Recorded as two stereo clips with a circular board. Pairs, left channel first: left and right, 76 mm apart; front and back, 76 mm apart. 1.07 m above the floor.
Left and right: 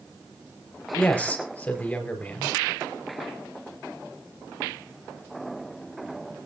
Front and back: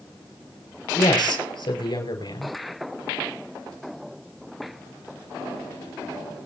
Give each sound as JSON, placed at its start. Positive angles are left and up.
{"t": 0.9, "sound": "a man speaking", "azimuth_deg": 15, "distance_m": 5.0}